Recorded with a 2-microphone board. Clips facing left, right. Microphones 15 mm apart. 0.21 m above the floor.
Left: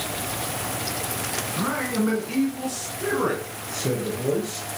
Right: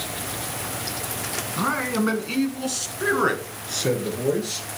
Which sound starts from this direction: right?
A man speaking, at 1.6 s.